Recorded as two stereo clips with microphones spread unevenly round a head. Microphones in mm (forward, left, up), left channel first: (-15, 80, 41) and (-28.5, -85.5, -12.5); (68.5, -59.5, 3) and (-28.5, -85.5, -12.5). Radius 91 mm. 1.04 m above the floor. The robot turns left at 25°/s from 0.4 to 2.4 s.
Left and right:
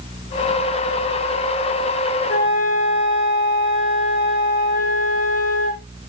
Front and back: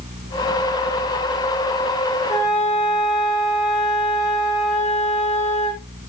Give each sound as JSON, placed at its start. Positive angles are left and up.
{"t": 2.3, "sound": "a flute", "azimuth_deg": 50, "distance_m": 5.0}